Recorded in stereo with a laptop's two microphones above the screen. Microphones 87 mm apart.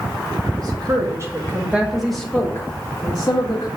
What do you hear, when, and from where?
0.6 s a woman speaking: 50° right (ahead or behind), 1.7 m; by 3.7 s 50° left (ahead or behind), 1.7 m